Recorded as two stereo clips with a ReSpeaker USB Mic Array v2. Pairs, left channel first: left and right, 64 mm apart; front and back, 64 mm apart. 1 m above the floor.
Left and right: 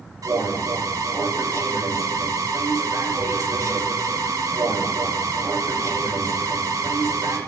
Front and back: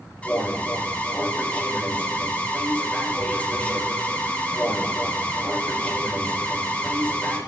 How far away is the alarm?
About 3.5 m.